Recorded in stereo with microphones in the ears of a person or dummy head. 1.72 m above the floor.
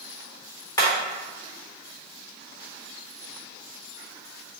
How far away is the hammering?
About 1.2 m.